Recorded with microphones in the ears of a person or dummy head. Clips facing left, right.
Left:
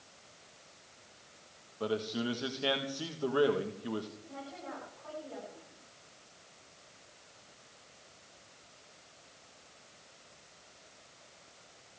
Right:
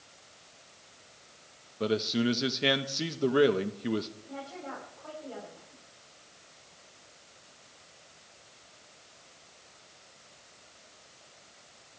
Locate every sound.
1.8 s a man speaking: 25° right (ahead or behind), 1.3 m
4.2 s a woman speaking: 60° right (ahead or behind), 9 m